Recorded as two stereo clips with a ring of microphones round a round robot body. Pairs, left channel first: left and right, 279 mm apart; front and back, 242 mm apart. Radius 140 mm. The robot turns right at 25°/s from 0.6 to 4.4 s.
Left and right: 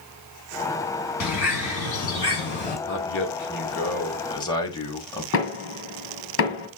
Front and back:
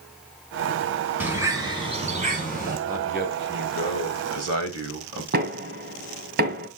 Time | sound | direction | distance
1.2 | a bird | 100° left | 2.5 m
2.9 | a man speaking | 125° left | 2.5 m
5.3 | knocking | 130° left | 2 m